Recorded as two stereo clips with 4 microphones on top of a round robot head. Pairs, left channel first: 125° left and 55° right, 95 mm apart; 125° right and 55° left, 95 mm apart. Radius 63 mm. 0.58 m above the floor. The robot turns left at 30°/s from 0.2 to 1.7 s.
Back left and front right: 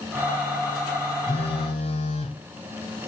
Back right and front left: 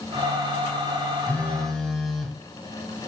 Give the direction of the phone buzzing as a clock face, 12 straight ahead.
7 o'clock.